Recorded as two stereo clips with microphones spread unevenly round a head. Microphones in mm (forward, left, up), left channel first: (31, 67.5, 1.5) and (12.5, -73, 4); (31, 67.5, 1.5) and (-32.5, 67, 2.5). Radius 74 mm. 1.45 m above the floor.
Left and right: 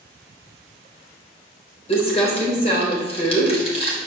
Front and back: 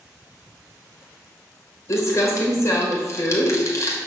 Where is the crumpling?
35° left, 3 m.